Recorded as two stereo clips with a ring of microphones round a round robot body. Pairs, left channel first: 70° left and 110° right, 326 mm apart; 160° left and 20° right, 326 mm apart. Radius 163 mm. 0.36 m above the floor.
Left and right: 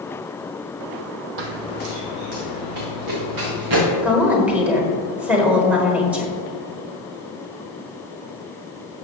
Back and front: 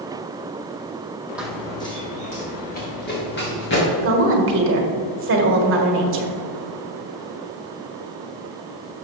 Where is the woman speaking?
30° right, 1.5 m.